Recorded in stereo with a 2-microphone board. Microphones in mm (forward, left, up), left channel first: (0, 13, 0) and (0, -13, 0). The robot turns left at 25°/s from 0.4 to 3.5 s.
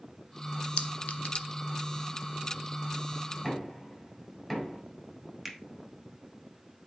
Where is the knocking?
10° left (ahead or behind), 4 m.